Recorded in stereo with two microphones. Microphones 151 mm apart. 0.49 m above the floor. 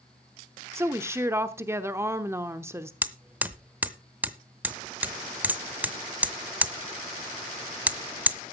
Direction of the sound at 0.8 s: 15° right (ahead or behind).